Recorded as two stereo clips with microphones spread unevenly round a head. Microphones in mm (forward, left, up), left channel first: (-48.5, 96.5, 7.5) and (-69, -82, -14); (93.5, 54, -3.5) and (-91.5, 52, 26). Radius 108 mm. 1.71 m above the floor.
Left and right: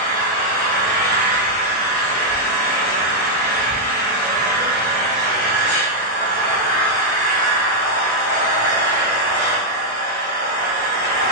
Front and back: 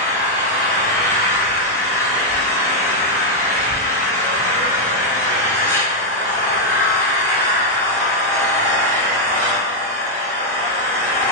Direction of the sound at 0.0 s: 90° right.